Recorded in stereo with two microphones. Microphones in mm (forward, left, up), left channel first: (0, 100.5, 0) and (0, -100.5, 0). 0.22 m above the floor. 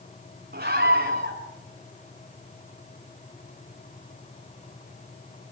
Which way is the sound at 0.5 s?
45° right (ahead or behind).